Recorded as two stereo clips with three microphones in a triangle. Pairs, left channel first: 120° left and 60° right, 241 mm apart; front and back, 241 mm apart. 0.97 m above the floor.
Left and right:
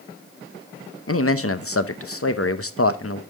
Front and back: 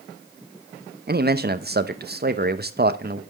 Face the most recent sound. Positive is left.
turn(degrees=130)